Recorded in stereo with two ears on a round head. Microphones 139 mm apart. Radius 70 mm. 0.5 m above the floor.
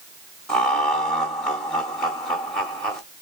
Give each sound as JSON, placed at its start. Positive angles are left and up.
{"t": 0.5, "sound": "laughter", "side_deg": 5, "distance_m": 1.0}